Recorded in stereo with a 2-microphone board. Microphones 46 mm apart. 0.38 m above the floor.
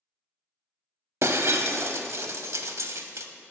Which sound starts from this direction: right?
Breaking glass, at 1.2 s.